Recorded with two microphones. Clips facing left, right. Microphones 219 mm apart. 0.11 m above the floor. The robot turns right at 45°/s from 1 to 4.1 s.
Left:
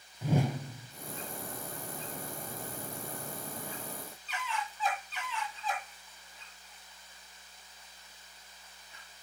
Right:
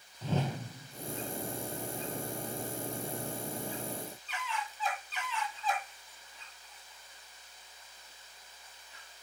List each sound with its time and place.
0.2 s a whoosh: 10° left (ahead or behind), 0.6 m